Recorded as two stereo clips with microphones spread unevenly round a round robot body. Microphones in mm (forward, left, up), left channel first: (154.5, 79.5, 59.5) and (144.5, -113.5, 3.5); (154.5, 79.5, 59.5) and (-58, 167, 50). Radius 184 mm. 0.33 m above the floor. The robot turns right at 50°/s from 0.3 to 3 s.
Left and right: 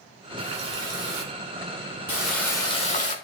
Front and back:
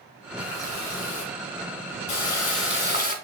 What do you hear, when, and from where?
0.4 s a running tap: 100° right, 2.5 m; by 3.1 s 30° left, 2.5 m